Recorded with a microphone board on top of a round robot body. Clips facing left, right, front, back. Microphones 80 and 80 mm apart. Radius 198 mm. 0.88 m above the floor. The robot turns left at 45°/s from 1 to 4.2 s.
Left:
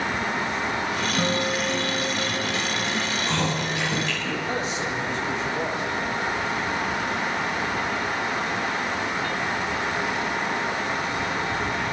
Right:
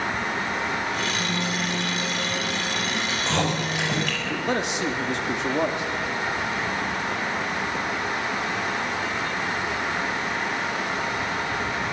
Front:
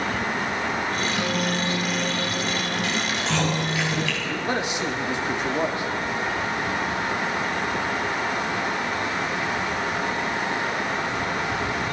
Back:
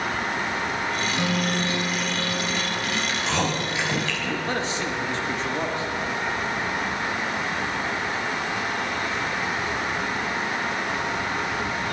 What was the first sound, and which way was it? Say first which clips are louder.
A guitar: left 3 dB, even; 85° left.